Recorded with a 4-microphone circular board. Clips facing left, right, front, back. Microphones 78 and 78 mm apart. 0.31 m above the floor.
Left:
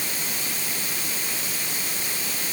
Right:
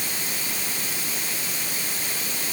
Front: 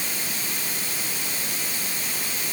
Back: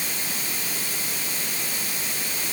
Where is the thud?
No thud in this recording.